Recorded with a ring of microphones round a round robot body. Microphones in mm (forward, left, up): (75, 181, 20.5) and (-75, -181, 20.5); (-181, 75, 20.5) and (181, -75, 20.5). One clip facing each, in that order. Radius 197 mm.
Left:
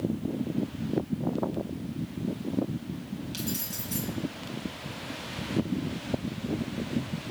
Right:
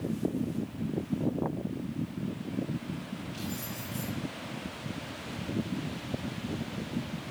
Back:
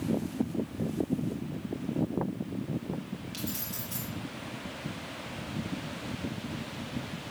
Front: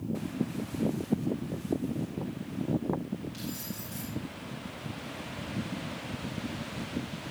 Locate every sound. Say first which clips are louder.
3.3 s keys jangling: left 3 dB, even; 105° left, 6.5 m